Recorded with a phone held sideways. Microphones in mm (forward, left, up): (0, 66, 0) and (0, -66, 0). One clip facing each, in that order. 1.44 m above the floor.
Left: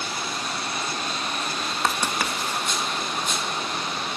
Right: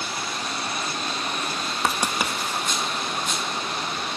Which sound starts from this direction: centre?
Writing, at 1.8 s.